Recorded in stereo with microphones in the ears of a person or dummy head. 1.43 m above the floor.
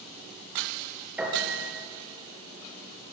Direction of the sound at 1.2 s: 5° right (ahead or behind).